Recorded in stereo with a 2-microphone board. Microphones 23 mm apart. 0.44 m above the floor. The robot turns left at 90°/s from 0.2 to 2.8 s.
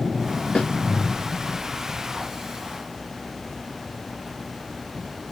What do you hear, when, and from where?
0.6 s a snare drum: 70° left (ahead or behind), 1.0 m; by 0.7 s 80° left, 1.0 m